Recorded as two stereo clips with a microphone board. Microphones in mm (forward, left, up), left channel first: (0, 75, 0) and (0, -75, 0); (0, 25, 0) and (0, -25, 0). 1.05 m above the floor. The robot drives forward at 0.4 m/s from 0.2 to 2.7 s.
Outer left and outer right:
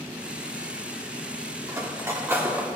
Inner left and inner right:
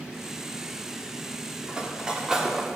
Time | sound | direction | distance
1.7 | cutlery clinking | 20° right (ahead or behind) | 1.4 m